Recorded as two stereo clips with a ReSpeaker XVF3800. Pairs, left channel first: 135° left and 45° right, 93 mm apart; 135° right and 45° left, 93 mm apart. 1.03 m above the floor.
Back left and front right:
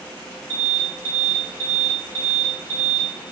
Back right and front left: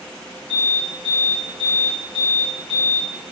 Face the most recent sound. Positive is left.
turn(degrees=-155)